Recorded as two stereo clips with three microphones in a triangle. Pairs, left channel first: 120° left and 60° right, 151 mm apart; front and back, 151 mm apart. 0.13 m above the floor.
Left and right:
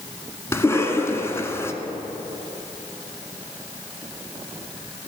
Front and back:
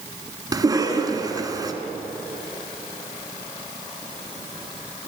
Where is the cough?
170° left, 1.5 m.